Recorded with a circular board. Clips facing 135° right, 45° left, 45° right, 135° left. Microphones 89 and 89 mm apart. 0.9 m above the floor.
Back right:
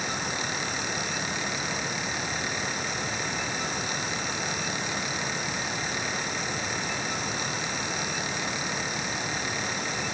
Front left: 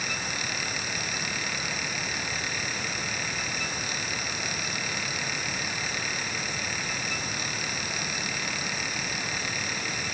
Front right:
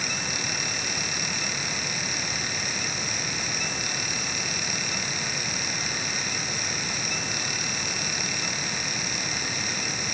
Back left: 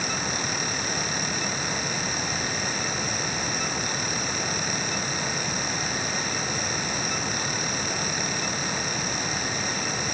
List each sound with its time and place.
Only background noise.